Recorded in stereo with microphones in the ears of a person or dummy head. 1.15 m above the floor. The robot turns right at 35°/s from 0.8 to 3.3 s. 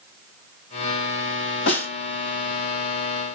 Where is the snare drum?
75° left (ahead or behind), 3.5 m; by 1.9 s 80° left, 3.5 m.